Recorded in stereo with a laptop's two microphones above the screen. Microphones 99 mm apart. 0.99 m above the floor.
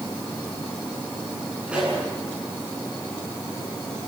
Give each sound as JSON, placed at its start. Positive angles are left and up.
{"t": 1.7, "sound": "a pop", "side_deg": -10, "distance_m": 10.0}